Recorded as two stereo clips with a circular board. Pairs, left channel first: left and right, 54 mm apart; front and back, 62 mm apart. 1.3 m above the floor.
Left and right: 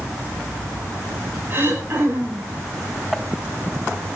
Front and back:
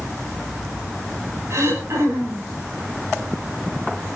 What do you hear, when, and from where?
1.5 s throat clearing: 140° right, 4.5 m